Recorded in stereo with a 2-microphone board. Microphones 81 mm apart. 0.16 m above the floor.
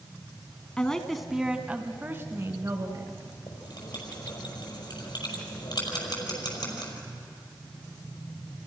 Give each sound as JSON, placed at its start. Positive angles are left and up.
{"t": 0.8, "sound": "a woman speaking", "side_deg": 10, "distance_m": 1.5}
{"t": 3.5, "sound": "writing", "side_deg": 55, "distance_m": 5.0}